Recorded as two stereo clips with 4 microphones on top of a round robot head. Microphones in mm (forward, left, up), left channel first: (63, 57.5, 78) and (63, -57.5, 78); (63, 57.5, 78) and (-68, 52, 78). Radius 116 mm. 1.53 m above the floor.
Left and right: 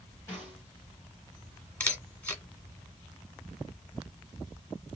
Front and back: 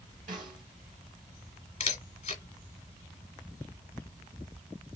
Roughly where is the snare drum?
Behind.